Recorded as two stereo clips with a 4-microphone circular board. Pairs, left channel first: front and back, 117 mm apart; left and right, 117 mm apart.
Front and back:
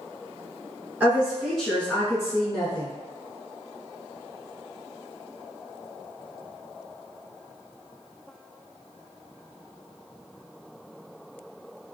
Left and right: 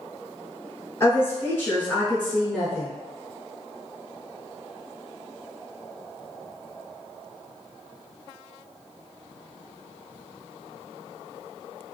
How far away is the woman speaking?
About 1.2 m.